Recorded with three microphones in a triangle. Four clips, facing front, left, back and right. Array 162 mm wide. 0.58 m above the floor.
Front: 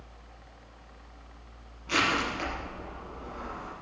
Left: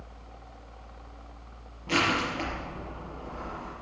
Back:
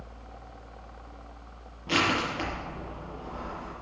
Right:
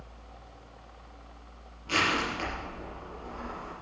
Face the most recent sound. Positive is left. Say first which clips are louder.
# left 2 dB, back 1 dB
turn(degrees=155)